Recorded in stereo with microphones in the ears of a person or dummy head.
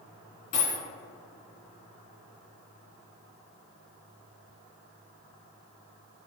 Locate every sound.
0.5 s a dropped coin: 35° left (ahead or behind), 2.0 m